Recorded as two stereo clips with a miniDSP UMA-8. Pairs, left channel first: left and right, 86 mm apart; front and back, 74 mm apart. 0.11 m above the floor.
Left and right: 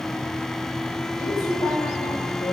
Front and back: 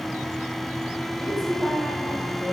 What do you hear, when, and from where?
1.2 s a woman speaking: 80° left, 9 m